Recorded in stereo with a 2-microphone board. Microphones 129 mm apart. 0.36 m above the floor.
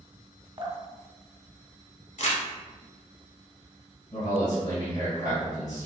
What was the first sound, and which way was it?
Dripping, 35° right (ahead or behind).